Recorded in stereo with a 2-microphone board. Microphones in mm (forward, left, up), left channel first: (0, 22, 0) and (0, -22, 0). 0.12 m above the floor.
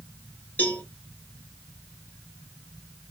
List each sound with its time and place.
0.6 s a cowbell: 45° left (ahead or behind), 2 m